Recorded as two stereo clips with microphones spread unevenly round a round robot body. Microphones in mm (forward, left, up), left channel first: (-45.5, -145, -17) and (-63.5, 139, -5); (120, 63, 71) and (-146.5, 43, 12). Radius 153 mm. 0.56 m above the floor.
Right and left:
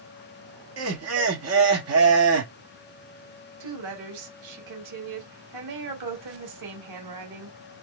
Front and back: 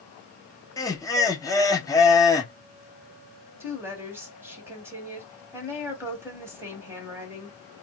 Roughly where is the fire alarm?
No fire alarm in this recording.